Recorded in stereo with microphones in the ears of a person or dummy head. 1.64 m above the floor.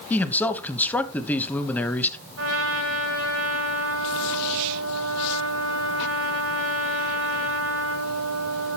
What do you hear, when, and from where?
0.1 s a man speaking: 5° left (ahead or behind), 1.1 m
2.4 s a trumpet: 80° right, 4.5 m